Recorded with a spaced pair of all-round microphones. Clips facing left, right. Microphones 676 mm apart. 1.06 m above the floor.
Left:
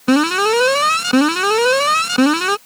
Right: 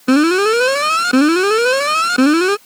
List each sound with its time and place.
0.1 s an alarm: 30° left (ahead or behind)